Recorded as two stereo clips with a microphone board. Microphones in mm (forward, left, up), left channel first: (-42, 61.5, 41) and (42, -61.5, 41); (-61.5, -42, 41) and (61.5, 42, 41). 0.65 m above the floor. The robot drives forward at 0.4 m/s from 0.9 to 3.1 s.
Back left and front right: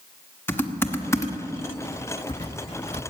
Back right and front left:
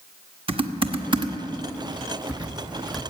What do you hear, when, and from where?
0.5 s typing on a keyboard: 60° left, 1.2 m; by 3.0 s 125° left, 1.2 m